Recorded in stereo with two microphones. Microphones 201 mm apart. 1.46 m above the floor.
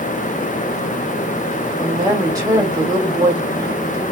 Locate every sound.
1.8 s a woman speaking: 15° right (ahead or behind), 1.2 m